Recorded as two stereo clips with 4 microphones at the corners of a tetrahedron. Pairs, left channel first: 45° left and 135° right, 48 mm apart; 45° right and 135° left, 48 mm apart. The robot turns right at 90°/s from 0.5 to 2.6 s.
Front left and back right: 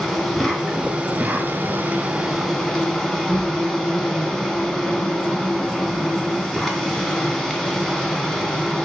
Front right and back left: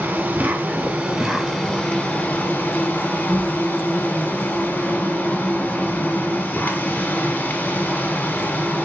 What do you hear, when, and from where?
0.0 s an insect: 140° left, 0.9 m; by 8.9 s 30° right, 0.9 m